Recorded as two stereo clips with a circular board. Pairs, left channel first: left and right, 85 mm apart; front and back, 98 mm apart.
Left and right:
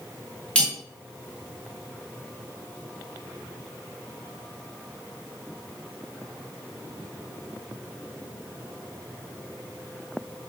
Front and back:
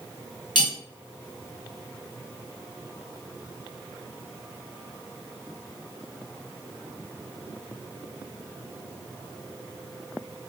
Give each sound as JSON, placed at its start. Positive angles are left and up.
{"t": 0.6, "sound": "cutlery clinking", "azimuth_deg": 15, "distance_m": 1.0}